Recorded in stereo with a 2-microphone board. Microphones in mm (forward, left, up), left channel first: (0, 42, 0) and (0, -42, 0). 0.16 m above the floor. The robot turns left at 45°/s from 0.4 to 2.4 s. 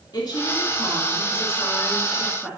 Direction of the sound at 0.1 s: 85° left.